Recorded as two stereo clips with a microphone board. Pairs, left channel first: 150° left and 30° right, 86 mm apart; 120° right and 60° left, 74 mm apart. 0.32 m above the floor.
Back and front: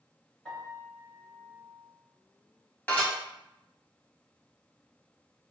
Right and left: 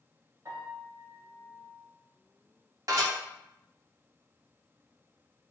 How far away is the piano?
About 1.2 m.